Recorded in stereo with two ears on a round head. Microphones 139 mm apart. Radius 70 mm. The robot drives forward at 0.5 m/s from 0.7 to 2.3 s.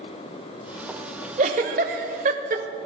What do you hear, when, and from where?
1.4 s a giggle: 50° right (ahead or behind), 1.0 m; by 2.8 s 55° right (ahead or behind), 0.9 m